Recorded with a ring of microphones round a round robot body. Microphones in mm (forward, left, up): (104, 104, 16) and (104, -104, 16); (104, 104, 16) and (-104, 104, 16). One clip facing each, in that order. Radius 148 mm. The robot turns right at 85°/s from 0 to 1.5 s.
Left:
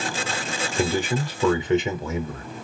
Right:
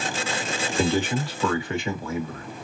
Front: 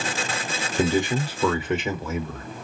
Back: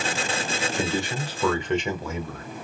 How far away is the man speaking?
About 0.9 m.